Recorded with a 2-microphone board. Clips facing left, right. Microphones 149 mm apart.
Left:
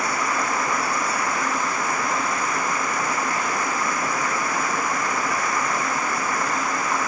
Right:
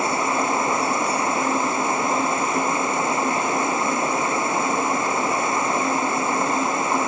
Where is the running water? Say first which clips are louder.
Right 3 dB; 25° right (ahead or behind).